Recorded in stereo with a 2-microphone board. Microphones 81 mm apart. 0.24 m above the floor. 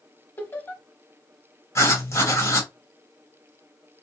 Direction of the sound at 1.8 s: 35° left (ahead or behind).